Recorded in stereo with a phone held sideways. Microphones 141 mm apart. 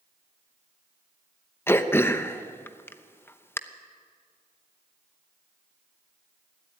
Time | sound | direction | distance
1.7 | throat clearing | 15° left (ahead or behind) | 0.8 m